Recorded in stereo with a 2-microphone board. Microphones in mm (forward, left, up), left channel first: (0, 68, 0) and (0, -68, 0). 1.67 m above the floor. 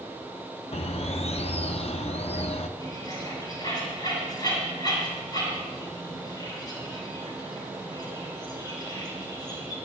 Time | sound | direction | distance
0.7 | a bird | 55° left (ahead or behind) | 0.7 m
2.8 | a bird | 30° left (ahead or behind) | 8 m